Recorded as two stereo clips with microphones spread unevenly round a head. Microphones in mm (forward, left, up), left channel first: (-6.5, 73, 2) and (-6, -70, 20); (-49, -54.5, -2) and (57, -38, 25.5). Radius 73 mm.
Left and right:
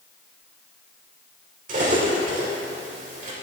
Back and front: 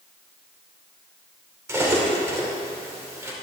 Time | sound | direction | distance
1.7 | cutlery clinking | 50° right | 2.5 m